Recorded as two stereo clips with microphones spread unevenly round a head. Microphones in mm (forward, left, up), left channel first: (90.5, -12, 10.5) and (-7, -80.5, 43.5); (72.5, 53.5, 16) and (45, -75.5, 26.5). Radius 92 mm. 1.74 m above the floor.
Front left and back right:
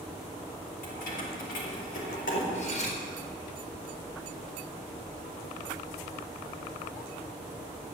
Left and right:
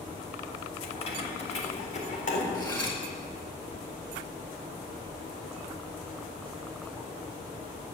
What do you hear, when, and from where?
0.8 s keys jangling: 35° left, 3.5 m; by 2.4 s 45° left, 4 m
2.5 s cutlery clinking: 15° left, 4.5 m